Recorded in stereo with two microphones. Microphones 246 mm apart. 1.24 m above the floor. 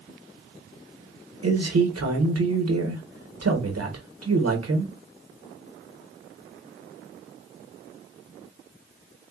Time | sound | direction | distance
1.4 | a man speaking | 80° right | 0.9 m